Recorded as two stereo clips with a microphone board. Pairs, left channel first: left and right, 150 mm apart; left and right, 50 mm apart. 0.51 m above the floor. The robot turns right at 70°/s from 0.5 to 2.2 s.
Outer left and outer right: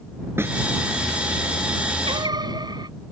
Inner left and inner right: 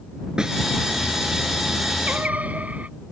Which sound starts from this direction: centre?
A snare drum, at 0.4 s.